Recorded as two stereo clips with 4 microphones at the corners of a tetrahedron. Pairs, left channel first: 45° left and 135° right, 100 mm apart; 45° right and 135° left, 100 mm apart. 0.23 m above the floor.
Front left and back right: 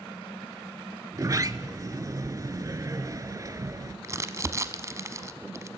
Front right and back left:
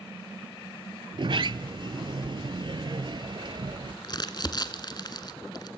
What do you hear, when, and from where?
1.1 s a sliding door: 170° left, 0.6 m
4.0 s crumpling: 80° right, 0.9 m